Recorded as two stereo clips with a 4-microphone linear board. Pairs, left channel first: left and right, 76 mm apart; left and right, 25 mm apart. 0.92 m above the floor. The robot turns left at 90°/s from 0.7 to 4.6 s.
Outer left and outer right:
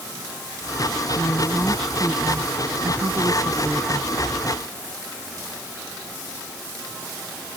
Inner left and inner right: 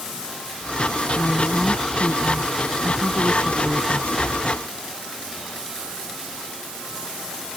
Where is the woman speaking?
65° left; by 4.1 s 160° left.